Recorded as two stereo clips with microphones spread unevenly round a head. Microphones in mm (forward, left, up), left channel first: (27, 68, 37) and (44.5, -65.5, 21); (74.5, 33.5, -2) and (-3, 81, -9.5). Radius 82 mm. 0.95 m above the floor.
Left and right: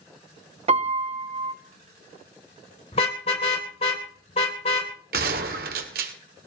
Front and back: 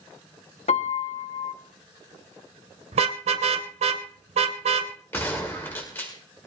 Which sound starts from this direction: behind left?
A car horn, at 2.9 s.